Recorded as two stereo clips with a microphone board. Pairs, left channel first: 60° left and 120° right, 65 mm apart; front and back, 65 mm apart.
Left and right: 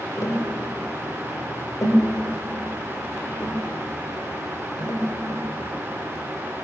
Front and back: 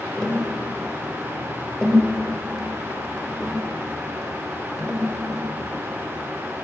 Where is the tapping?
85° left, 4 m.